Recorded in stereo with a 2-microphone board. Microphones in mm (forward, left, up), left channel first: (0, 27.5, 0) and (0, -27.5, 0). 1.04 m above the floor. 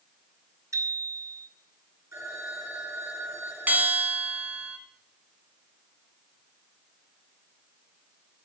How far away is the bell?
About 1.8 m.